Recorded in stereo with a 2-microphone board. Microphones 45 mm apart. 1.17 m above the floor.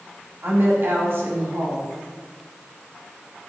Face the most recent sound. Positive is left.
turn(degrees=-55)  # may be behind; listen again after turning